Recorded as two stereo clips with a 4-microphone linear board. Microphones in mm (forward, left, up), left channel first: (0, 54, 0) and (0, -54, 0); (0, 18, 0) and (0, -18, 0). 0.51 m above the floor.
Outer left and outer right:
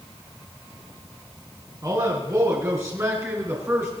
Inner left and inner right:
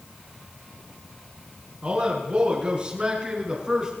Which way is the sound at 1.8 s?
35° right (ahead or behind).